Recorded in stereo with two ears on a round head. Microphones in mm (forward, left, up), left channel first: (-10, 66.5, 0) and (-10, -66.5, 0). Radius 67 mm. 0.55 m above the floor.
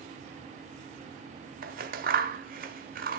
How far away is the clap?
I don't hear a clap.